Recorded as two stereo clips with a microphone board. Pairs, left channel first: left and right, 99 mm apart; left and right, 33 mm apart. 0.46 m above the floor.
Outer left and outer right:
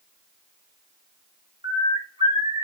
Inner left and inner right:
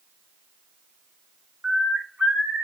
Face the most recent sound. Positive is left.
turn(degrees=-65)  # may be behind; listen again after turning